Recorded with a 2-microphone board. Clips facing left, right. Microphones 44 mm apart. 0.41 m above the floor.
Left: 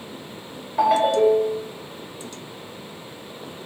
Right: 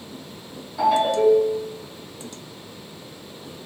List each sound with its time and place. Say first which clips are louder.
0.8 s a ringtone: left 1 dB; 50° left (ahead or behind), 1.0 m